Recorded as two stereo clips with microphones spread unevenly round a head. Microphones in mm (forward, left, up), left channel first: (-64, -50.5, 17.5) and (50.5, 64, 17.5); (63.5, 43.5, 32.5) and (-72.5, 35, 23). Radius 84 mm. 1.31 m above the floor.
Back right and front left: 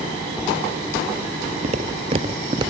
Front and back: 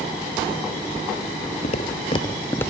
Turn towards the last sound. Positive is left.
turn(degrees=50)